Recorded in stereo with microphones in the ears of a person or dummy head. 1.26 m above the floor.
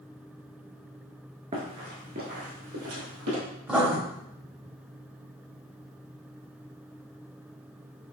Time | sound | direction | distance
1.5 | running footsteps | 25° right (ahead or behind) | 1.3 m
3.7 | writing | 5° right (ahead or behind) | 1.3 m